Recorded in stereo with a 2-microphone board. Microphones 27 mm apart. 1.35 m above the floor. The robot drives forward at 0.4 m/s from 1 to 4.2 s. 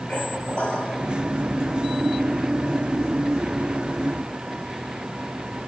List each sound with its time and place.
0.1 s a squeak: 50° left (ahead or behind), 6 m